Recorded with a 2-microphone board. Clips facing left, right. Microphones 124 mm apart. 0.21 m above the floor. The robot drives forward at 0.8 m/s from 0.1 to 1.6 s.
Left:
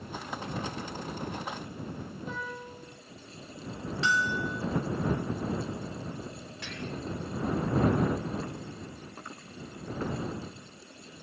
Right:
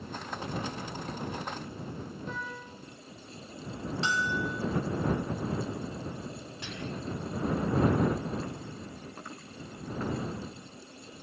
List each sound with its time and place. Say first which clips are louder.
2.3 s a piano: left 1 dB; 5° left (ahead or behind), 4.5 m
4.0 s a bell: left 2 dB; 35° right (ahead or behind), 2.5 m
6.6 s whispering: even; 20° right (ahead or behind), 1.6 m